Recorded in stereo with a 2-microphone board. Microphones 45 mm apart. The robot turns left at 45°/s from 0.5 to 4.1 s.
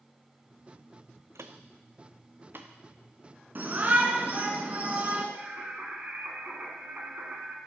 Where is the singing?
35° right (ahead or behind), 1.5 m.